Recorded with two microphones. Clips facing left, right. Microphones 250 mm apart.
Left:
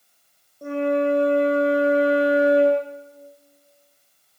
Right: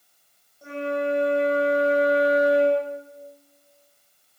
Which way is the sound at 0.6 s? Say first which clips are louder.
Left 6 dB; 55° left (ahead or behind).